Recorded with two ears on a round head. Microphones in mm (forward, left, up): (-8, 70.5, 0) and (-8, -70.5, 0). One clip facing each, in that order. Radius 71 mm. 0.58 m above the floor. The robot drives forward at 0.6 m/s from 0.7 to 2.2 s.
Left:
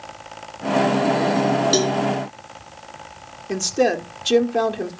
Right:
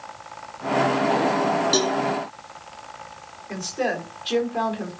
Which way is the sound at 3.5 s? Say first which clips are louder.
Left 7 dB; 55° left (ahead or behind).